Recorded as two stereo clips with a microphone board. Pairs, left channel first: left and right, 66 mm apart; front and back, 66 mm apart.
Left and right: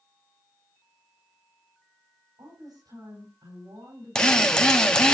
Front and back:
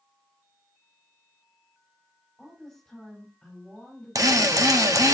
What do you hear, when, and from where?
2.4 s a woman speaking: 90° right, 5.5 m
4.2 s a drill: 165° left, 1.2 m